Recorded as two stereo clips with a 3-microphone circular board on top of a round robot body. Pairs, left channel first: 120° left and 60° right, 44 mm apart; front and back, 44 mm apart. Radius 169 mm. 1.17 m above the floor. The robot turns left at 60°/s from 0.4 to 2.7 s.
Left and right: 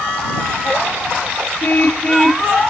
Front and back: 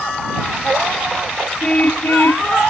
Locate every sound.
1.6 s a car horn: 75° left; by 2.5 s 20° left